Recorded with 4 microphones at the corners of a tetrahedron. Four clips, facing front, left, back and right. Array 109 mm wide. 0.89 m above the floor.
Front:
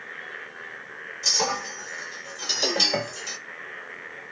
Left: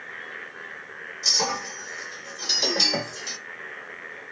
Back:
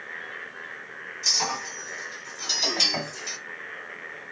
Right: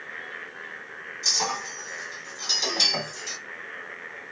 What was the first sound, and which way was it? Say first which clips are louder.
A clink: left 2 dB, front 3 dB; 30° left.